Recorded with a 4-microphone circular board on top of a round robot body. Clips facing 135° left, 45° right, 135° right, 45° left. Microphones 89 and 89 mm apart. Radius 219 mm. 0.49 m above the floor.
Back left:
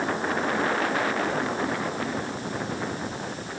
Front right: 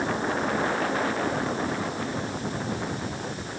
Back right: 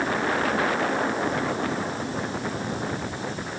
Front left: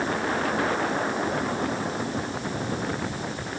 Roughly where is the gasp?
I don't hear a gasp.